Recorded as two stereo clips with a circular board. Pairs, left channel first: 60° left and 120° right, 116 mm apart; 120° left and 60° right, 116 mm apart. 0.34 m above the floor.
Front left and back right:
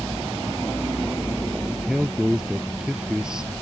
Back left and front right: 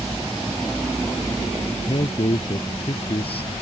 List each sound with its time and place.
1.7 s a man speaking: 155° left